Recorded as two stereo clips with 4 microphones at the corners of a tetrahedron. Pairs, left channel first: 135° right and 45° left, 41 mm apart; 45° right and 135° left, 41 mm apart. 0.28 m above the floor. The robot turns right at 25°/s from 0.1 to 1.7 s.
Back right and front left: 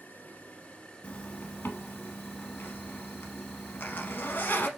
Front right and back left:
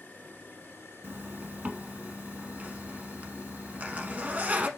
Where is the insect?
85° right, 1.3 m; by 4.8 s 45° right, 1.3 m.